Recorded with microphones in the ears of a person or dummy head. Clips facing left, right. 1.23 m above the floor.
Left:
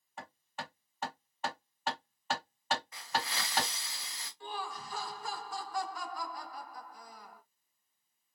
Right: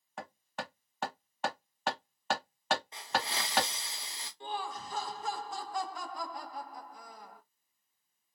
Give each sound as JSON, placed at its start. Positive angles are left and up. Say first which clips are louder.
{"t": 0.2, "sound": "hammering", "louder": "right 3 dB", "side_deg": -60, "distance_m": 1.2}
{"t": 2.9, "sound": "a hiss", "louder": "right 2 dB", "side_deg": -30, "distance_m": 0.7}
{"t": 4.4, "sound": "laughter", "louder": "right 3 dB", "side_deg": -25, "distance_m": 0.6}